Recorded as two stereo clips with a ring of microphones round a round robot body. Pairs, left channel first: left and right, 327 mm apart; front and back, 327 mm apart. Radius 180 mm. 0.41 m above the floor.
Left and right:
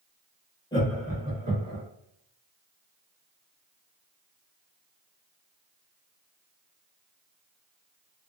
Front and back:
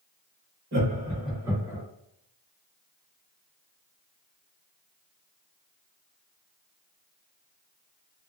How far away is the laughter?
About 1.3 m.